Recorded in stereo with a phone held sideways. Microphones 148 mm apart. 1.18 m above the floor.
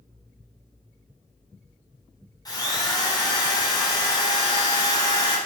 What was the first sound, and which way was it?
A drill, 25° left (ahead or behind).